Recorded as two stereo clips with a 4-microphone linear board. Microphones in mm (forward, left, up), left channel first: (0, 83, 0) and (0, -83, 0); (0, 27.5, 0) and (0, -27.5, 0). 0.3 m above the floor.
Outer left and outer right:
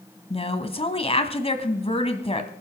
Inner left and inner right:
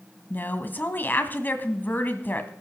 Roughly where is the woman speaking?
Left.